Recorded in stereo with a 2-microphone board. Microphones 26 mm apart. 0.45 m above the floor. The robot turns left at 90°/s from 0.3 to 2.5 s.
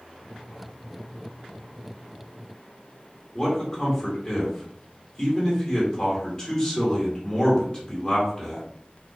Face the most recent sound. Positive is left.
turn(degrees=25)  # may be behind; listen again after turning